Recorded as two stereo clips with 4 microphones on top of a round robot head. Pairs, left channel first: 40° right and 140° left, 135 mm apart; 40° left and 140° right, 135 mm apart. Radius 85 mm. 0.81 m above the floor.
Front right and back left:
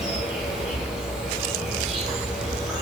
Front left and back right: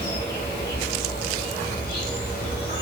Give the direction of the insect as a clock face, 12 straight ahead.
10 o'clock.